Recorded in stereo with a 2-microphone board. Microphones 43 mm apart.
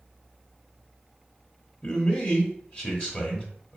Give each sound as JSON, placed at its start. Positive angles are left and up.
{"t": 1.8, "sound": "a man speaking", "side_deg": 25, "distance_m": 1.1}